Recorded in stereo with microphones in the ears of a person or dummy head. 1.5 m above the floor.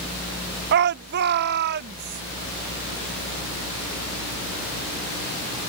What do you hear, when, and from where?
0.7 s a shout: 55° right (ahead or behind)